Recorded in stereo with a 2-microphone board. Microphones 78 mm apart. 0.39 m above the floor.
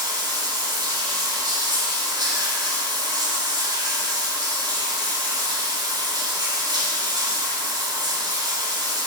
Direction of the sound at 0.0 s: 65° right (ahead or behind).